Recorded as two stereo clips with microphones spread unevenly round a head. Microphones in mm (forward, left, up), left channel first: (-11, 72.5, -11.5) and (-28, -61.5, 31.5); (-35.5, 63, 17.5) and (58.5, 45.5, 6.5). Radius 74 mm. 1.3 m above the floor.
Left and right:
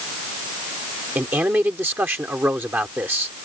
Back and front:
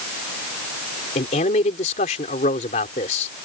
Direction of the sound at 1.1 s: 175° right.